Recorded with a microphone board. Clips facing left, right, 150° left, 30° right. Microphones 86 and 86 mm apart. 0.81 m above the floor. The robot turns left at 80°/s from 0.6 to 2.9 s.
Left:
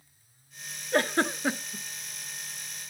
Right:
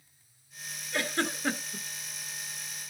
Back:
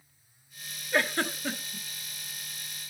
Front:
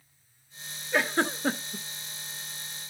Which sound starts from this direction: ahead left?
A giggle, at 0.9 s.